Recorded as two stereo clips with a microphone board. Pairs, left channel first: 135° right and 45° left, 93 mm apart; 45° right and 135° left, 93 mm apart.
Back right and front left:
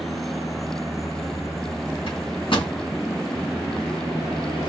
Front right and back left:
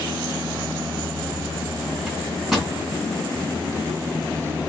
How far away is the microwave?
About 2.5 m.